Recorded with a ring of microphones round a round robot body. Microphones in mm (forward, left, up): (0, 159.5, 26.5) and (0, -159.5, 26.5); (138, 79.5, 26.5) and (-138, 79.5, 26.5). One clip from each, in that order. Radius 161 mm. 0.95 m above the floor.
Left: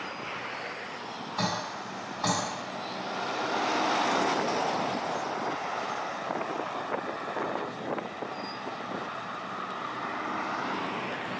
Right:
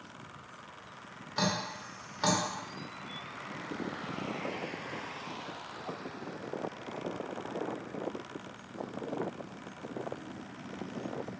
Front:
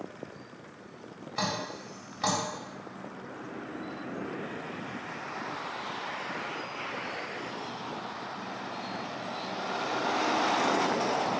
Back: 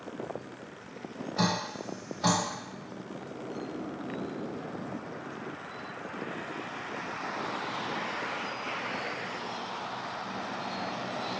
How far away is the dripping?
About 2 m.